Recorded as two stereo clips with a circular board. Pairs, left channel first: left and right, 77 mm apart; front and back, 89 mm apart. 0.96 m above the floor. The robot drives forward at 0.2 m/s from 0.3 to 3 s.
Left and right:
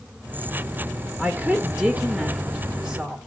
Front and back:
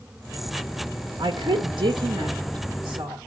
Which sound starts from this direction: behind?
A woman speaking, at 1.2 s.